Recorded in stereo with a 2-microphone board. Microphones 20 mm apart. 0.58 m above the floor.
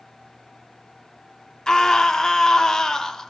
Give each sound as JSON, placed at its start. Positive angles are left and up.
{"t": 1.7, "sound": "a scream", "side_deg": 30, "distance_m": 0.9}